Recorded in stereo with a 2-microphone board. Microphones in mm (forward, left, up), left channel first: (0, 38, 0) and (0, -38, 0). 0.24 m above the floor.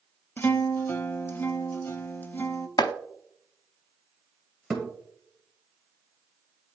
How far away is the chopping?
About 0.5 m.